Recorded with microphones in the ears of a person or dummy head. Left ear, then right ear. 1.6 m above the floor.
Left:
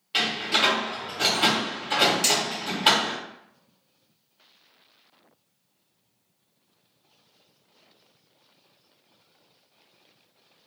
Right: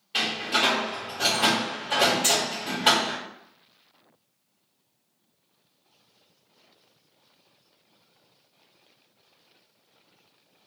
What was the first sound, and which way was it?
A door slam, 20° left (ahead or behind).